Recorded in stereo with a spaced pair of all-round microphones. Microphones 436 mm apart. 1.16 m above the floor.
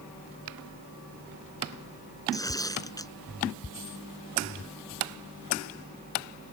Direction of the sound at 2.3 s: 10° left (ahead or behind).